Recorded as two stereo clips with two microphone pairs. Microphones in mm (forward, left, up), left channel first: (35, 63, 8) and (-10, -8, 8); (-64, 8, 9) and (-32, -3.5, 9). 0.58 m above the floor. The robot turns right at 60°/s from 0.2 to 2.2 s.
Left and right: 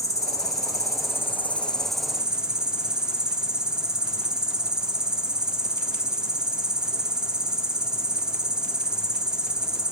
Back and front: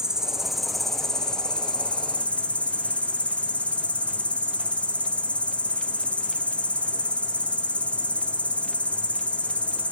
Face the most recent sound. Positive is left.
turn(degrees=160)